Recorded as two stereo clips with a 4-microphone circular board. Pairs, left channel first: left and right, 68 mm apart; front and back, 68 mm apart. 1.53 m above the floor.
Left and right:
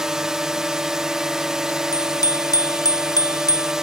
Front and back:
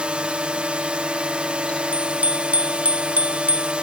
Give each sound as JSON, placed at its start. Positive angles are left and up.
{"t": 0.0, "sound": "a drone", "azimuth_deg": -155}
{"t": 1.9, "sound": "a bicycle bell", "azimuth_deg": 115}